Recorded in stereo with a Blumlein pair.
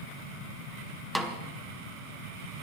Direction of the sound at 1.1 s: Straight ahead.